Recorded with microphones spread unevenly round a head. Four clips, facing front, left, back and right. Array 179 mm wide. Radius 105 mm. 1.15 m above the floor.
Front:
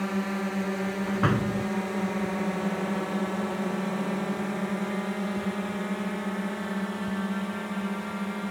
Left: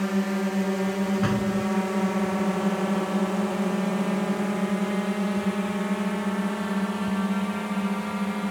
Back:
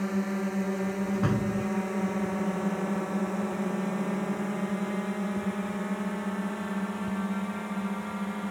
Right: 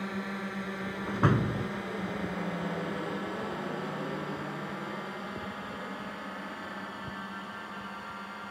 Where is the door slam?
15° right.